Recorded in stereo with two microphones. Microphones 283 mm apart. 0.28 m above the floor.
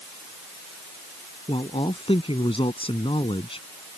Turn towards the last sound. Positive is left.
turn(degrees=20)  # may be behind; listen again after turning